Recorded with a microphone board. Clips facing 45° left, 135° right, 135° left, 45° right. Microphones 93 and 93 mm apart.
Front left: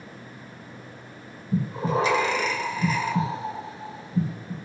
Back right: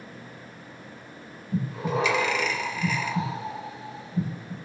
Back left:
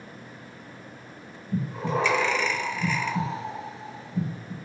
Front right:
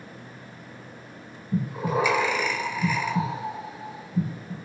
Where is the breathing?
30° left, 0.5 m.